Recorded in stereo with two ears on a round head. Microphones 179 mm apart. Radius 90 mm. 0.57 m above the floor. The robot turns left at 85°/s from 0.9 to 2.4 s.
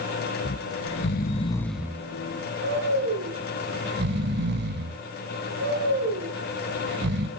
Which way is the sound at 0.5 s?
70° left (ahead or behind).